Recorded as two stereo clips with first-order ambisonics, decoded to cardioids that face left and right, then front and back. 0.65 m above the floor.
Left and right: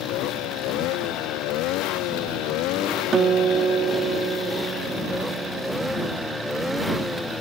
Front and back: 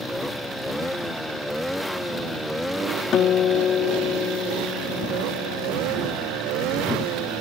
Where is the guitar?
40° right.